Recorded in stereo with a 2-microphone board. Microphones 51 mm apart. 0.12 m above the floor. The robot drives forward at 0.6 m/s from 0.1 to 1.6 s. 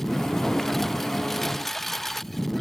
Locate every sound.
0.0 s a lawn mower: 5° left (ahead or behind)